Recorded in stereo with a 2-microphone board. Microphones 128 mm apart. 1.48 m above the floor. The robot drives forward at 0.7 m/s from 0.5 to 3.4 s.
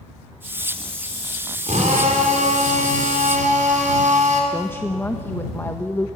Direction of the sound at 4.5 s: 20° left (ahead or behind).